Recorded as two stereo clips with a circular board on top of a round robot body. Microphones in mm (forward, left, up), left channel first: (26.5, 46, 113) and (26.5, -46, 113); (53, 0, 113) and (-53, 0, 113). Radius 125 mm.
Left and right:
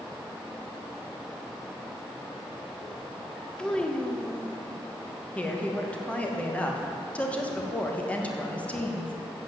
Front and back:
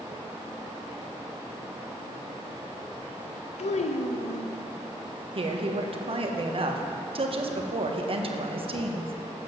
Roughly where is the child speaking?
Ahead.